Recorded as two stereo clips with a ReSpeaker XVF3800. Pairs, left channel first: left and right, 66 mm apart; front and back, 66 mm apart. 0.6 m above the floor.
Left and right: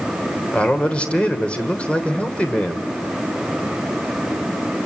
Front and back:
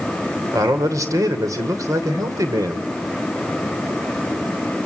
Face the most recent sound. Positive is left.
turn(degrees=160)